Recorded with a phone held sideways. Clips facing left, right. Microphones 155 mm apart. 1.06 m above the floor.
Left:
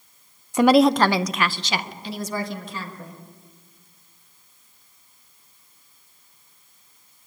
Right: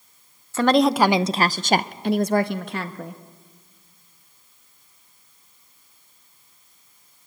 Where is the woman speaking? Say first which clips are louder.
Left 2 dB; 20° left (ahead or behind), 0.6 m; by 3.2 s 75° right (ahead or behind), 1.6 m.